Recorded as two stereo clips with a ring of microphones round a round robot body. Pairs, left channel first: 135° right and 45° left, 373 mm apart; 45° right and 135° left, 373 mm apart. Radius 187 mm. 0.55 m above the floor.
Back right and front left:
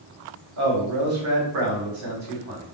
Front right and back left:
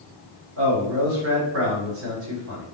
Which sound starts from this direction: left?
A man speaking, at 0.6 s.